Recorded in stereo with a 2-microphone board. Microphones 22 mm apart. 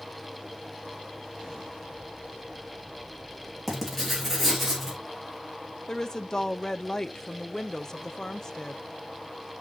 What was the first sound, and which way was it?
Writing, centre (ahead or behind).